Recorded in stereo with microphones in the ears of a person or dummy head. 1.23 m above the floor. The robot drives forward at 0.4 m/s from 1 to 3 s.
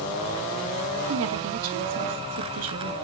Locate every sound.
1.1 s a woman speaking: 75° right (ahead or behind), 1.5 m